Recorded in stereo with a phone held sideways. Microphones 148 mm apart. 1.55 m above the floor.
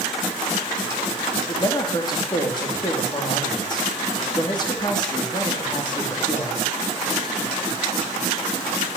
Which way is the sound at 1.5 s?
30° left (ahead or behind).